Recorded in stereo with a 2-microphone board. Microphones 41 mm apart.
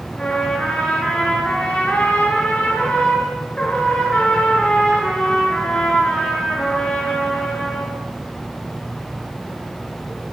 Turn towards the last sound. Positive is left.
turn(degrees=25)  # may be behind; listen again after turning